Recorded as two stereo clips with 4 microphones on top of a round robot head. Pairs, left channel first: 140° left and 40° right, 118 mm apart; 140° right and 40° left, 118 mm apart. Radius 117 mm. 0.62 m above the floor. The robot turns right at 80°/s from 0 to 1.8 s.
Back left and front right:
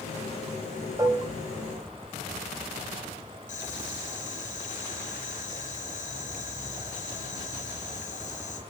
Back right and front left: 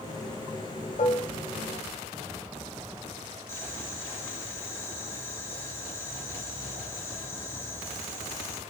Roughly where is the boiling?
Behind left.